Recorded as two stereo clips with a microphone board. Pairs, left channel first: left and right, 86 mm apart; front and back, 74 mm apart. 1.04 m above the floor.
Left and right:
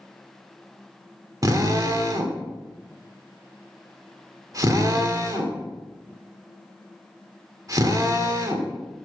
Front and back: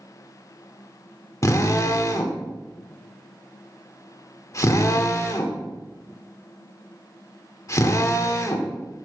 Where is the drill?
45° right, 1.6 m.